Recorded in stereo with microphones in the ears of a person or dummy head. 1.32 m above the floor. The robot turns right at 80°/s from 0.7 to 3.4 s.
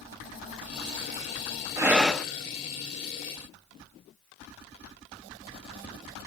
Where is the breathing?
25° right, 0.8 m; by 2.3 s 15° left, 0.8 m.